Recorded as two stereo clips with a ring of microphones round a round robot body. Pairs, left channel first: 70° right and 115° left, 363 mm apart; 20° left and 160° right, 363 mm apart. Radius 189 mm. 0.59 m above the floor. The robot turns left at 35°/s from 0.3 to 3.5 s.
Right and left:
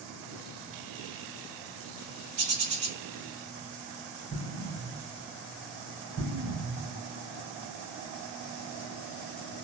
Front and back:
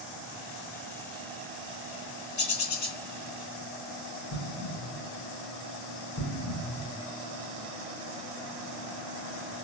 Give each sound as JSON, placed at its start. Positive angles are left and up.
{"t": 2.4, "sound": "a bird", "azimuth_deg": 85, "distance_m": 2.0}
{"t": 4.3, "sound": "an explosion", "azimuth_deg": 55, "distance_m": 2.5}